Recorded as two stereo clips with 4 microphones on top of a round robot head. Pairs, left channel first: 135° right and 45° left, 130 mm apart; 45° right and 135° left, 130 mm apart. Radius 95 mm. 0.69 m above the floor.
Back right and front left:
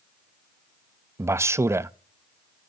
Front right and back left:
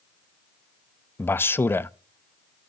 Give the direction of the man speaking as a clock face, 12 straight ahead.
12 o'clock.